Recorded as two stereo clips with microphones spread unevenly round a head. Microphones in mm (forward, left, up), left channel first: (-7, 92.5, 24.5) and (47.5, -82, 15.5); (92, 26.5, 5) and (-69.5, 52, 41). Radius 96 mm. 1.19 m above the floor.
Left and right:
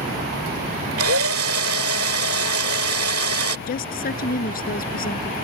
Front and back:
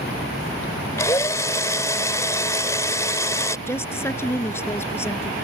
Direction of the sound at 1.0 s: 90° right.